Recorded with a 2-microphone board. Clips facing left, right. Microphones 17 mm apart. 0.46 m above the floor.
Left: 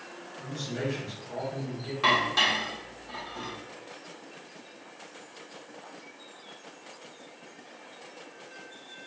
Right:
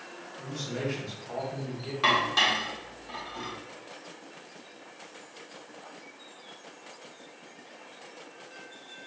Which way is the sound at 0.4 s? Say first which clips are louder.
Even; 55° right (ahead or behind).